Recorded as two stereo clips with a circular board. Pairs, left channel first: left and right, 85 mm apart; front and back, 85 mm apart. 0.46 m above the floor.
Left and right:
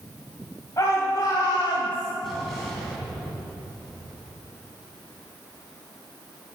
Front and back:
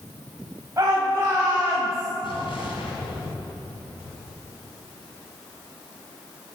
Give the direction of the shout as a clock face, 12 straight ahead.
8 o'clock.